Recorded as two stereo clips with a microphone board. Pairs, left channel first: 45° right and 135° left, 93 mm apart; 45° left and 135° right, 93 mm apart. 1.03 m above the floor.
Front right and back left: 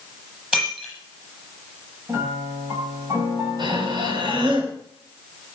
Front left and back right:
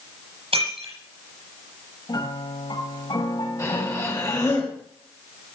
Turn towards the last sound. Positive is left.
turn(degrees=100)